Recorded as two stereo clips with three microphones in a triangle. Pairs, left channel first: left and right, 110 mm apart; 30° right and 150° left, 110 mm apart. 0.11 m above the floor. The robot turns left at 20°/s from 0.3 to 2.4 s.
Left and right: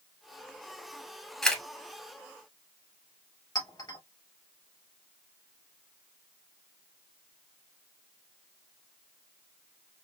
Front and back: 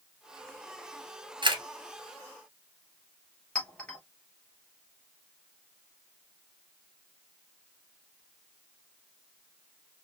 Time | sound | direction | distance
1.4 | a camera shutter | 170° left | 1.1 m
3.5 | a clink | 45° left | 1.8 m